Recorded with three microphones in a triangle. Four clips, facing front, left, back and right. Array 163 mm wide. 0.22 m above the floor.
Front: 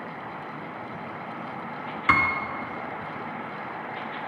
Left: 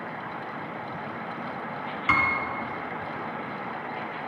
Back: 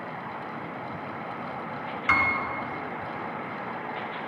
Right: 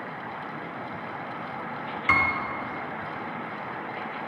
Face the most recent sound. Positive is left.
turn(degrees=5)